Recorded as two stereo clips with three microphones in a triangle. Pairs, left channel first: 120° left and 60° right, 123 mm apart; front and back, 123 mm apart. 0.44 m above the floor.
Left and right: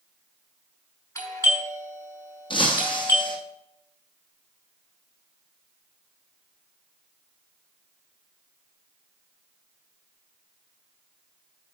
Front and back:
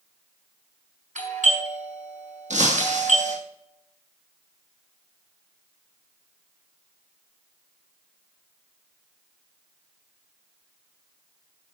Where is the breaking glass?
170° left, 2 m.